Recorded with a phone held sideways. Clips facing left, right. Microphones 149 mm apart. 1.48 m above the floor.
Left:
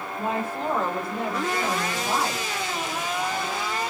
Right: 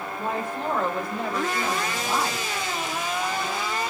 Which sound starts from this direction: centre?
A woman speaking, at 0.2 s.